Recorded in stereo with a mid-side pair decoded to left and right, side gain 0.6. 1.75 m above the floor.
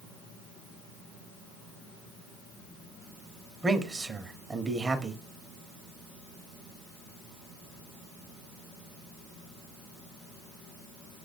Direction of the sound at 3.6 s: 25° right.